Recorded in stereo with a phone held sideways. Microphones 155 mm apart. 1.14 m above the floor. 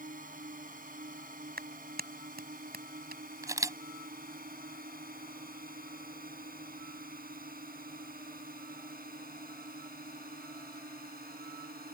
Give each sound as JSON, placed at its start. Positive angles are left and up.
{"t": 0.0, "sound": "a drone", "side_deg": -60}
{"t": 1.6, "sound": "a clap", "side_deg": -85}
{"t": 3.4, "sound": "a camera shutter", "side_deg": -20}